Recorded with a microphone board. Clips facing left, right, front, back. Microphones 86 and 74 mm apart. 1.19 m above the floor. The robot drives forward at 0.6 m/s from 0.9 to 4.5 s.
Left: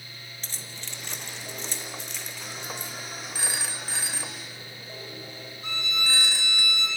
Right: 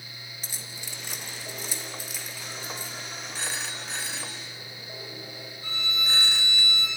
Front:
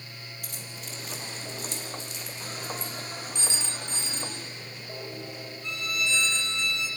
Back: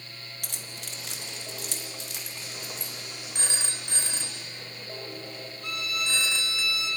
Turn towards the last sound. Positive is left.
turn(degrees=160)